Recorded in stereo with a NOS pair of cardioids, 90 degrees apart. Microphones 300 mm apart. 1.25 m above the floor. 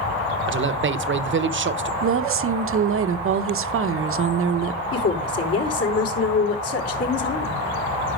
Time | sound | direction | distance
0.5 | a man speaking | 40° right | 1.1 m
2.0 | a woman speaking | 45° right | 1.0 m
4.9 | a woman speaking | 55° left | 4.5 m